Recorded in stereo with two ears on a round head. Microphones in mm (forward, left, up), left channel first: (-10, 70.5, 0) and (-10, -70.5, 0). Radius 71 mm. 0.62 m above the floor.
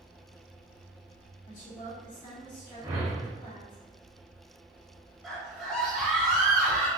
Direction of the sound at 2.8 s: 20° right (ahead or behind).